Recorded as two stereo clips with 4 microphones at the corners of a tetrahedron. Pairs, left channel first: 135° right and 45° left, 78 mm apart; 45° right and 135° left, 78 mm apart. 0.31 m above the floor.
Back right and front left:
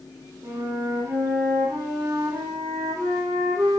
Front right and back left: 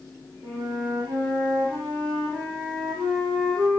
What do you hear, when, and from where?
0.4 s a flute: 100° left, 3.5 m